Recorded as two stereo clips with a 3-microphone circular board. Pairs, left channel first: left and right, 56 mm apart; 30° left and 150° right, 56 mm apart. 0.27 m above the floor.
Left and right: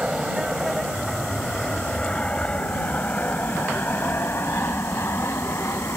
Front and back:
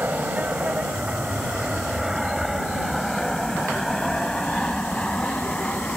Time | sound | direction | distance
0.0 | an aircraft | 155° right | ?